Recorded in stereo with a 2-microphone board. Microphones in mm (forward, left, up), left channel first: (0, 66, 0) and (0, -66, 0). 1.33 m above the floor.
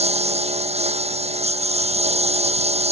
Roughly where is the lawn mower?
Right.